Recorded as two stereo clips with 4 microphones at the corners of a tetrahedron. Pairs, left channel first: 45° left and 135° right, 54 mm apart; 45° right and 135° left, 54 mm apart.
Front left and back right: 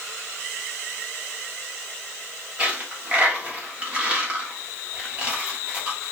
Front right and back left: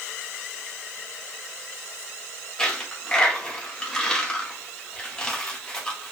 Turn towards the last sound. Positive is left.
turn(degrees=-100)